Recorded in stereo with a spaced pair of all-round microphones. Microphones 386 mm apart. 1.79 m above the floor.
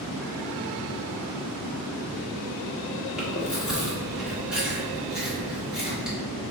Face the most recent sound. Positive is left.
turn(degrees=0)  # may be behind; listen again after turning